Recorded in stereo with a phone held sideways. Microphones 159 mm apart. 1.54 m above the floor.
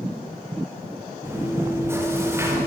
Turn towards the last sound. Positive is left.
turn(degrees=-15)  # may be behind; listen again after turning